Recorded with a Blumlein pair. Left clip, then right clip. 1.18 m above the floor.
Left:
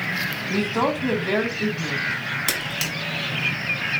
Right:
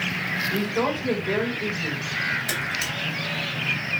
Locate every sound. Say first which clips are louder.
0.5 s a woman speaking: left 2 dB; 50° left, 1.6 m
2.5 s a camera shutter: left 1 dB; 45° left, 1.6 m